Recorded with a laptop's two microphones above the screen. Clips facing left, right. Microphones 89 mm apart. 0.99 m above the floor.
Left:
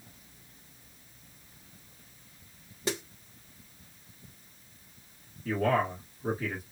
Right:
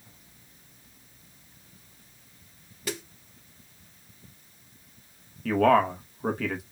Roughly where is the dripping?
No dripping in this recording.